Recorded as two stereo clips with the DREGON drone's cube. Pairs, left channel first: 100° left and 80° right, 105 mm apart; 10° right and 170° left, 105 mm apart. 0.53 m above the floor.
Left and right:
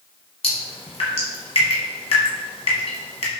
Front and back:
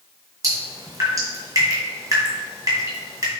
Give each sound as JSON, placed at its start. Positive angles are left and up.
{"t": 0.4, "sound": "dripping", "azimuth_deg": 115, "distance_m": 1.3}